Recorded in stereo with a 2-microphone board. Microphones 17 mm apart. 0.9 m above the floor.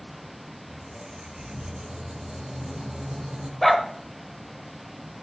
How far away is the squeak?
About 0.8 m.